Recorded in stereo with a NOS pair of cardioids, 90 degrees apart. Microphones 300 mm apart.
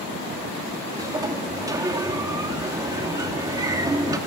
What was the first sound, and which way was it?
A sliding door, 10° right.